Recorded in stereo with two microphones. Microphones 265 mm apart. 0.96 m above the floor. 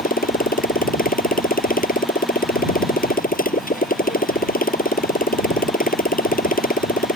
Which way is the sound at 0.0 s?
30° left (ahead or behind).